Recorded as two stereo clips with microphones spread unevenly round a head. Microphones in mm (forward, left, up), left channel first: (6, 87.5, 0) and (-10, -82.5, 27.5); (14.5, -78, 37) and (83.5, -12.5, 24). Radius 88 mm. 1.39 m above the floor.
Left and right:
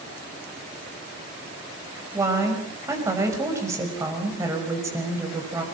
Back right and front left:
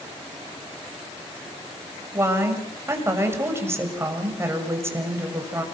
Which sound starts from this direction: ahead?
A woman speaking, at 2.1 s.